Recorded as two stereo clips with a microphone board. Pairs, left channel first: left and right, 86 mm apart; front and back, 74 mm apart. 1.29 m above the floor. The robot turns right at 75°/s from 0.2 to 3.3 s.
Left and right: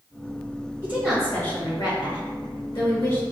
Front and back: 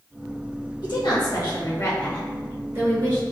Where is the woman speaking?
25° right, 1.8 m; by 3.2 s 155° left, 1.8 m.